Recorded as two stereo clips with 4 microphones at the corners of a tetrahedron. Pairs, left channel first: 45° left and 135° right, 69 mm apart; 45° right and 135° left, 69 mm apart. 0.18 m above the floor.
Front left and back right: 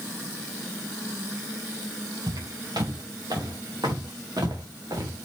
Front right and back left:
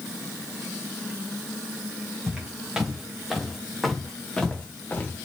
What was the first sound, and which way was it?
Footsteps, 145° right.